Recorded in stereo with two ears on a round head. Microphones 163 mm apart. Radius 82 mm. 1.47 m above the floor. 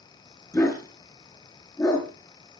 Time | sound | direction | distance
0.5 | a dog barking | 15° left (ahead or behind) | 5.5 m